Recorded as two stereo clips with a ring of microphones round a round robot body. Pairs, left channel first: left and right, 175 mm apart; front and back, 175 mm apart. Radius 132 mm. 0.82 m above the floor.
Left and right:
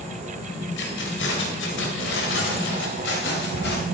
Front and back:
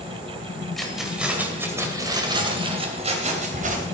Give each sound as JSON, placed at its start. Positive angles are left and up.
{"t": 0.8, "sound": "keys jangling", "azimuth_deg": 90, "distance_m": 2.5}